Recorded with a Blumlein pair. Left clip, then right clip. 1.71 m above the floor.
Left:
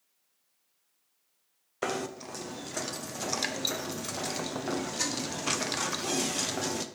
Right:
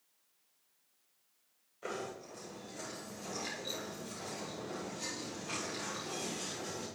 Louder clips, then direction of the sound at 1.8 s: Left 8 dB; 40° left.